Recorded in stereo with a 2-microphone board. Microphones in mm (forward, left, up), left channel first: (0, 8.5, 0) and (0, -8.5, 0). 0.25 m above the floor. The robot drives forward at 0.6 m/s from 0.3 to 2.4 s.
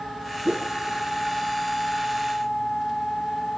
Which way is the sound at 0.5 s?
70° right (ahead or behind).